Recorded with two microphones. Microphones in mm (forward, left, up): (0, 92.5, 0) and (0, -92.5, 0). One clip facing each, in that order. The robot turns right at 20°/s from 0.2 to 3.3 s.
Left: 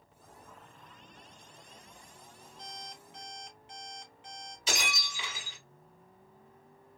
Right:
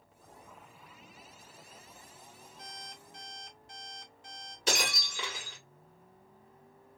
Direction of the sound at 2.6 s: 55° right (ahead or behind).